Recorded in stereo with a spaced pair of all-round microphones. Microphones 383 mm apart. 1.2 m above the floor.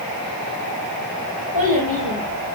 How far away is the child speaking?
About 6.5 m.